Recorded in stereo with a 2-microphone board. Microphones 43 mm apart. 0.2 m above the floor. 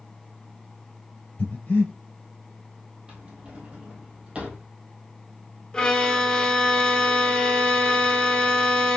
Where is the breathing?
35° left (ahead or behind), 3 m.